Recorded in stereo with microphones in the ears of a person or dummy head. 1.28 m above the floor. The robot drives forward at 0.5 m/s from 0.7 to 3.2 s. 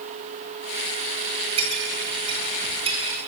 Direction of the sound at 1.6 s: 40° right (ahead or behind).